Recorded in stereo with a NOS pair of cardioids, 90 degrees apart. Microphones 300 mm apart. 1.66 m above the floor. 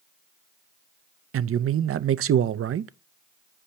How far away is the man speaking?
About 0.7 m.